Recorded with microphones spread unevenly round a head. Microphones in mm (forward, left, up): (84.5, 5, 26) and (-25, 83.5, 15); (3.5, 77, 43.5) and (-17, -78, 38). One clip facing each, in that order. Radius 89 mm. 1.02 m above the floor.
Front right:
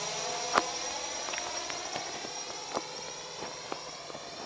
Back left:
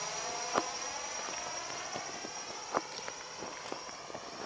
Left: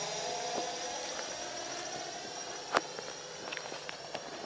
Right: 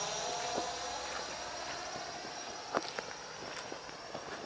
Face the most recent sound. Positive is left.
turn(degrees=25)